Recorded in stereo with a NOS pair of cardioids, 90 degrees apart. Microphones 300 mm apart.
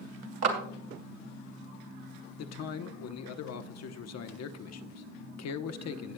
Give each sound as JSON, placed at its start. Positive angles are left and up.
{"t": 0.4, "sound": "a clap", "azimuth_deg": -55, "distance_m": 2.5}
{"t": 2.4, "sound": "a man speaking", "azimuth_deg": 60, "distance_m": 1.0}